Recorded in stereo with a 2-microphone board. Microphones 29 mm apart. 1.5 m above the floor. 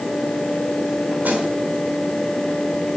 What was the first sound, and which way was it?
A snare drum, 60° right (ahead or behind).